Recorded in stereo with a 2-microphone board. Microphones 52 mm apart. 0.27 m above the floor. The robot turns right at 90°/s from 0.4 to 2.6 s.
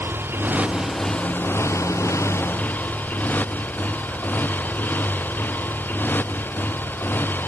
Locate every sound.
0.0 s a motorcycle: 50° right (ahead or behind); by 7.5 s 45° left (ahead or behind)